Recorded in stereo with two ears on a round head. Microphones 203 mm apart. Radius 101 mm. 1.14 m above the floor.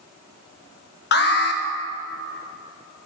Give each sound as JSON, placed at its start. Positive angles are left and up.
{"t": 1.1, "sound": "an alarm", "side_deg": 50, "distance_m": 1.2}